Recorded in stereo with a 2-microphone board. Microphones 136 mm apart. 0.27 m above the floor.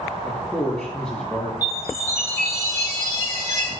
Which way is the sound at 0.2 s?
5° left (ahead or behind).